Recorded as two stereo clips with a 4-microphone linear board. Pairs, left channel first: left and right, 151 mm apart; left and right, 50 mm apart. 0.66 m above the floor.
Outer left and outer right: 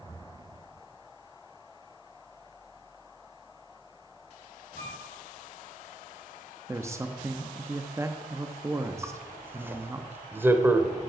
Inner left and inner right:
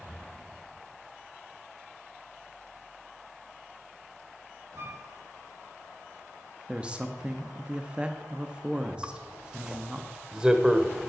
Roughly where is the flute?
Right.